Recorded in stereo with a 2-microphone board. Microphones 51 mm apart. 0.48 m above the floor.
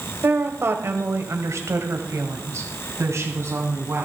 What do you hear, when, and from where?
0.2 s a woman speaking: 45° right (ahead or behind), 1.8 m; by 4.1 s 65° right (ahead or behind), 3.5 m